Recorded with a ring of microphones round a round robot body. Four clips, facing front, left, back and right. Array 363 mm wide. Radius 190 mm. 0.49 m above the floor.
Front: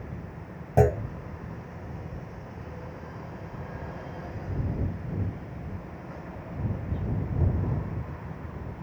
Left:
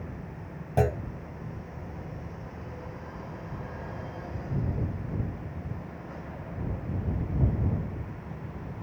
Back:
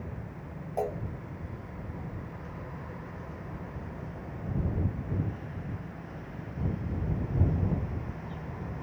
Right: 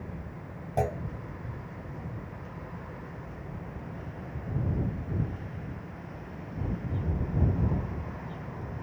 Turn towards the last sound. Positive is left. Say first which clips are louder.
# left 3 dB, front 10 dB
turn(degrees=10)